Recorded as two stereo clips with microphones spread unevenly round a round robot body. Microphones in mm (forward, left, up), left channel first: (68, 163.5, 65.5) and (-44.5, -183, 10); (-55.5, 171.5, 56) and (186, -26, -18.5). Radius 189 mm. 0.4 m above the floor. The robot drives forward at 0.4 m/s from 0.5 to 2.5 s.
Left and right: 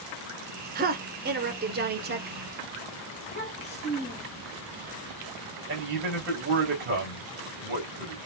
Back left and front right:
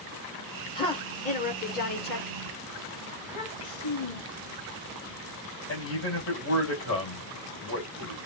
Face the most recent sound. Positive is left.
turn(degrees=-160)